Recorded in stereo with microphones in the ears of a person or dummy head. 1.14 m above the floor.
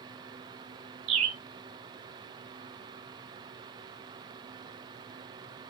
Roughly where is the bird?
Right.